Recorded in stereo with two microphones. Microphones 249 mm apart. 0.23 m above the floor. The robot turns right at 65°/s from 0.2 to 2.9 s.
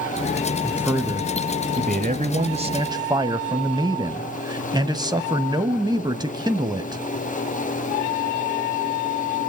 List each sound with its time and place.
0.6 s a man speaking: straight behind, 1.2 m; by 7.0 s 30° right, 1.2 m